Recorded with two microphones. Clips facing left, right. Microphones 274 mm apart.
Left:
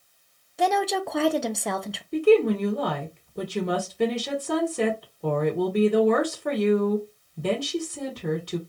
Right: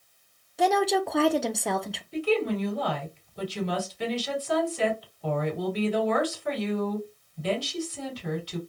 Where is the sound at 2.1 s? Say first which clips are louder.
Left 7 dB; 55° left (ahead or behind), 1.4 m.